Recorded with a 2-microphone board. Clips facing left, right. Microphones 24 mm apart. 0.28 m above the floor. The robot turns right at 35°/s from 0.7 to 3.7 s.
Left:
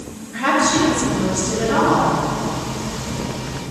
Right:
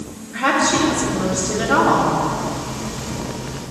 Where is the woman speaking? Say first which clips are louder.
Even; 165° left, 2.0 m; by 2.1 s 145° right, 2.0 m.